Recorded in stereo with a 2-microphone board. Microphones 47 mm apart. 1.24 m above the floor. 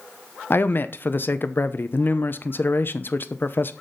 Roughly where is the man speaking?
Left.